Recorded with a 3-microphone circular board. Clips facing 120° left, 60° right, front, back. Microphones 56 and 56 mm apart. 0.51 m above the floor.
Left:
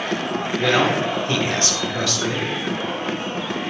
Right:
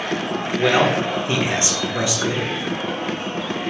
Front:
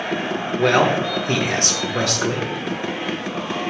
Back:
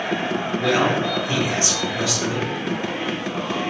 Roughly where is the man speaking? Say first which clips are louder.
Right 1 dB, front 4 dB; ahead.